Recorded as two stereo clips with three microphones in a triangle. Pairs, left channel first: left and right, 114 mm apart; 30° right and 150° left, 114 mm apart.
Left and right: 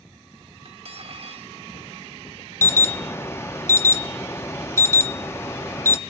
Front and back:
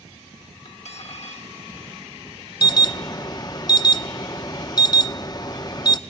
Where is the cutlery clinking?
55° right, 0.9 m.